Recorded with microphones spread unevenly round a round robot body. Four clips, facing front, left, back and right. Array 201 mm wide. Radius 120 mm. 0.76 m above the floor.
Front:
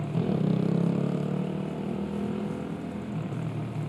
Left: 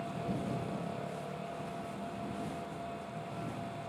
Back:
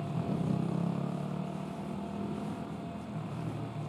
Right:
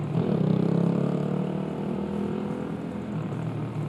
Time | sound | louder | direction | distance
0.0 | a motorcycle | right 11 dB, front 7 dB | 65° right | ?